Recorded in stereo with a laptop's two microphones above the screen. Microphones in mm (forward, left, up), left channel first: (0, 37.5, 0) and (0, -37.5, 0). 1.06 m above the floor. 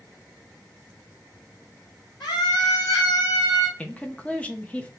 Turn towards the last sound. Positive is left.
turn(degrees=20)  # may be behind; listen again after turning